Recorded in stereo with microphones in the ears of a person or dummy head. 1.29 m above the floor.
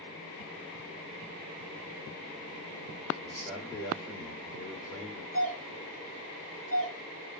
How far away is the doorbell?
About 1.4 m.